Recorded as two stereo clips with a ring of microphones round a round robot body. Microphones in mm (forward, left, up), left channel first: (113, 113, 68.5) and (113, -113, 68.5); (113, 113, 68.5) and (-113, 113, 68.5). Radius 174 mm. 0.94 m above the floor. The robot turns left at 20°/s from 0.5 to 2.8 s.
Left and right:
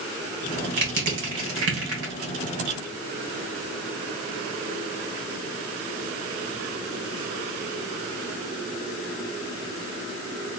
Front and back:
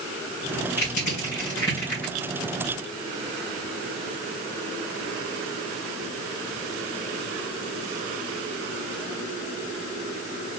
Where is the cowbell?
I don't hear a cowbell.